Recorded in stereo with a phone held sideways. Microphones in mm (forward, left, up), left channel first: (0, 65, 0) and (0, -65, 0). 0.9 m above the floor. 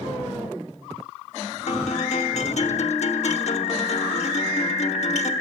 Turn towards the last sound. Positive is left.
turn(degrees=60)  # may be behind; listen again after turning